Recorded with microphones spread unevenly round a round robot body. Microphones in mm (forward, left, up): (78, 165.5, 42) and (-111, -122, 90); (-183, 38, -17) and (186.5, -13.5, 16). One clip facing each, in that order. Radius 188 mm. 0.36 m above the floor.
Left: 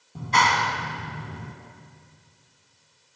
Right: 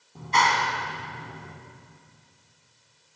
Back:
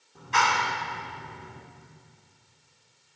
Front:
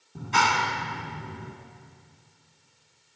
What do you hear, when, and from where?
0.1 s a clap: 50° left, 2.5 m